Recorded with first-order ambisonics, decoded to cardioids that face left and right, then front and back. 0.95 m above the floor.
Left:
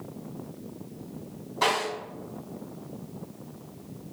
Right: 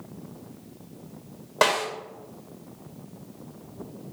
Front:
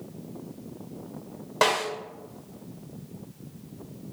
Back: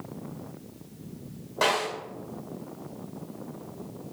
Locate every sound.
1.6 s a snare drum: 65° right, 1.8 m